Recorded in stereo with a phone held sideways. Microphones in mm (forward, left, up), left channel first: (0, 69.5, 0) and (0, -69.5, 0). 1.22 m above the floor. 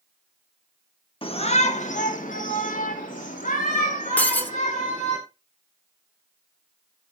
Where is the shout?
40° left (ahead or behind), 1.4 m; by 5.2 s 70° left (ahead or behind), 5 m.